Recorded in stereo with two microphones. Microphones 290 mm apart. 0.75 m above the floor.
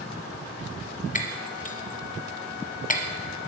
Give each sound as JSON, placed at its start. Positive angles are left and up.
{"t": 1.1, "sound": "breaking glass", "side_deg": 30, "distance_m": 0.7}